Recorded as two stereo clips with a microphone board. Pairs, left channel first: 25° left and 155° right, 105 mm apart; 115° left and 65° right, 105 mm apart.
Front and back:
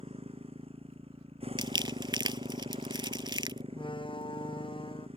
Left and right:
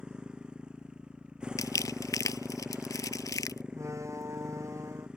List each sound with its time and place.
0.0 s a motorcycle: 150° right
1.6 s crumpling: 165° left
3.7 s a door slam: 10° right